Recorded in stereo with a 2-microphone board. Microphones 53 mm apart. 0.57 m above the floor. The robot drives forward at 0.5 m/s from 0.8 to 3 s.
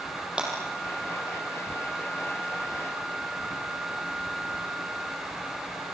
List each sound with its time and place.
0.4 s breaking glass: 15° right (ahead or behind), 6 m